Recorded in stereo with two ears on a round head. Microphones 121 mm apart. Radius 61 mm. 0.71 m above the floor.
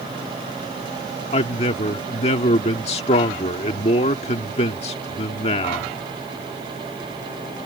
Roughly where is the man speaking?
Left.